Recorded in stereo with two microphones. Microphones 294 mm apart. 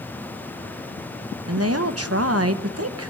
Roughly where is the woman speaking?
Right.